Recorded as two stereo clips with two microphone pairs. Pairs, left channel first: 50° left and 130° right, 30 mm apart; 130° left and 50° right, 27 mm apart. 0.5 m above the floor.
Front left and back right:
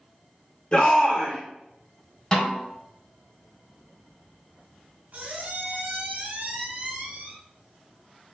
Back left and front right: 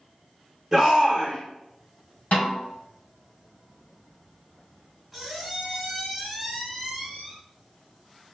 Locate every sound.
0.7 s a shout: 10° left, 0.9 m
2.3 s a snare drum: 110° left, 1.4 m
5.1 s a squeak: 135° right, 1.1 m